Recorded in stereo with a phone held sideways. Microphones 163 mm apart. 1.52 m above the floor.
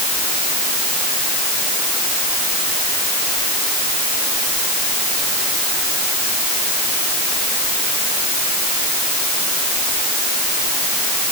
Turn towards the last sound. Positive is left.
No sound to turn to.